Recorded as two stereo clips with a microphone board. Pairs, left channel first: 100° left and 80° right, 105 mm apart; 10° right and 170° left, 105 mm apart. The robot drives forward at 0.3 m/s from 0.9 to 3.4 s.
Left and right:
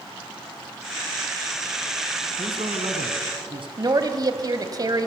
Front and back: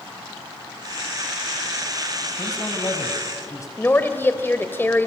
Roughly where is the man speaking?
Ahead right.